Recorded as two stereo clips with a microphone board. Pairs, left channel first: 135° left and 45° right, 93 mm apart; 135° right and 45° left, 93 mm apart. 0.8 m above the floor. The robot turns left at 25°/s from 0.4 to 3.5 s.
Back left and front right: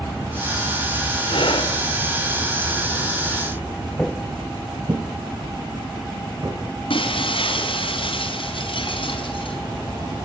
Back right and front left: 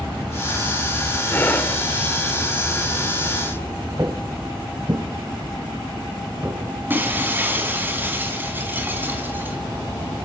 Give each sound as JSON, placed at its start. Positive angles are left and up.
{"t": 1.3, "sound": "breathing", "azimuth_deg": 160, "distance_m": 2.0}
{"t": 4.0, "sound": "footsteps", "azimuth_deg": 50, "distance_m": 0.9}
{"t": 6.9, "sound": "breaking glass", "azimuth_deg": 115, "distance_m": 4.0}